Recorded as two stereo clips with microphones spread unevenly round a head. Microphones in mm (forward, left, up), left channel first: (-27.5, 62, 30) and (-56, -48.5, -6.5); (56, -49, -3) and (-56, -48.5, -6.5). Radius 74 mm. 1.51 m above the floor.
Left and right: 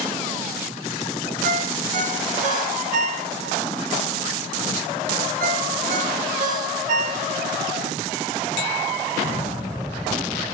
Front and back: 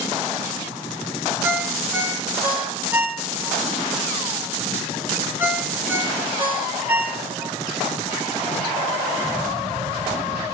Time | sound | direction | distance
1.4 | a ringtone | 110° right | 4.5 m